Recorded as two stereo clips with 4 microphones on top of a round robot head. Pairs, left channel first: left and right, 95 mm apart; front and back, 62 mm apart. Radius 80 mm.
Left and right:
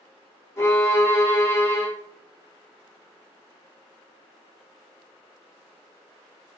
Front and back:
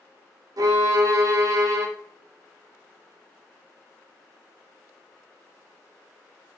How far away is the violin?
About 0.5 m.